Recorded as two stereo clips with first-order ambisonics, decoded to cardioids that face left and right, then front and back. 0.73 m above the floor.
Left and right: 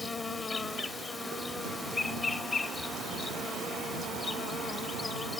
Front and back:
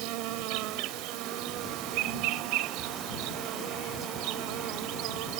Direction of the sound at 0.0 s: 165° left.